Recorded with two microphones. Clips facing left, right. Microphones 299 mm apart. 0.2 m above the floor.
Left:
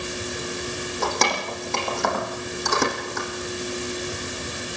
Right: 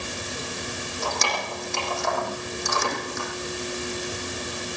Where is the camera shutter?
I don't hear a camera shutter.